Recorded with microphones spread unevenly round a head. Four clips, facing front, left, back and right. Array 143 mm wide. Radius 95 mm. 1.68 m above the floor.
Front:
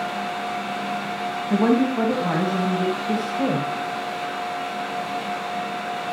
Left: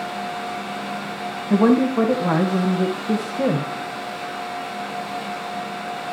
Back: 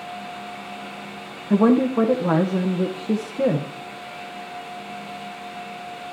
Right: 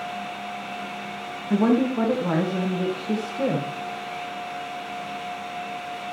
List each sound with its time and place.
1.5 s a woman speaking: 175° left, 2 m